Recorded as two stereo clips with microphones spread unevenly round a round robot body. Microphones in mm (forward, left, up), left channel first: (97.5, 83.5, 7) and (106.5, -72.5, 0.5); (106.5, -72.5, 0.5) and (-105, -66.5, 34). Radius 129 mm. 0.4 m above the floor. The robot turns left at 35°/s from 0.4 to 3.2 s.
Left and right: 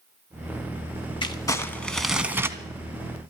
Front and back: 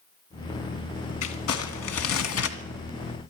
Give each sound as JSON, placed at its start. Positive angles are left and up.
{"t": 1.2, "sound": "crumpling", "azimuth_deg": 30, "distance_m": 1.3}